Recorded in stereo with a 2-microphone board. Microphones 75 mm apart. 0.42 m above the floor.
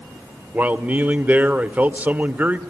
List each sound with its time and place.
0.5 s a man speaking: 20° right (ahead or behind), 1.1 m